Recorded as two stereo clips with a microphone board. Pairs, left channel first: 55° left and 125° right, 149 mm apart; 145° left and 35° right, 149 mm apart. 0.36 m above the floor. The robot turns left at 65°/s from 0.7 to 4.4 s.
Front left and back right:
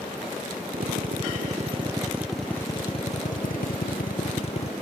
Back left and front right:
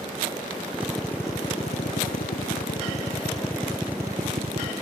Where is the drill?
110° right; by 4.7 s 10° left.